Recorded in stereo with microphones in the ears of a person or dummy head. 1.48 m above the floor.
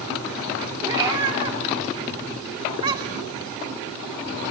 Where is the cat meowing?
20° right (ahead or behind), 2.5 m.